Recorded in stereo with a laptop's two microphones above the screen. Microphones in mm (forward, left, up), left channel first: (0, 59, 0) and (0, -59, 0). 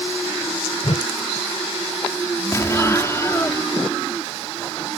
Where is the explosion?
25° left (ahead or behind).